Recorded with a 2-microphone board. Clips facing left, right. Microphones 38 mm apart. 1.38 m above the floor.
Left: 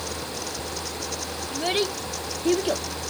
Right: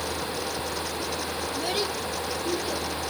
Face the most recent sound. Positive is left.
turn(degrees=75)  # may be behind; listen again after turning